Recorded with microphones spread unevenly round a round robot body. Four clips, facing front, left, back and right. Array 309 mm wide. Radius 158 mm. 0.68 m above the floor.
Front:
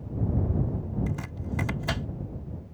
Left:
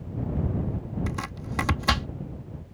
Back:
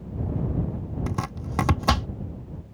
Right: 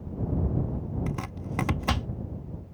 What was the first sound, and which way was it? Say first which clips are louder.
Chopping: left 1 dB, back 3 dB; 175° left.